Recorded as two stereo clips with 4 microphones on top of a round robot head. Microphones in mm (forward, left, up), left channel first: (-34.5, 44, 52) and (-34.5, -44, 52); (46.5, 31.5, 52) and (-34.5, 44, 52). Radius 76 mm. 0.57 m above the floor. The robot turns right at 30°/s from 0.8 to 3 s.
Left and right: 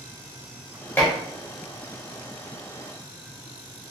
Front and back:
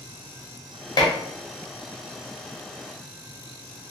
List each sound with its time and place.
1.0 s dishes clattering: 20° left, 0.9 m; by 1.1 s 25° left, 0.9 m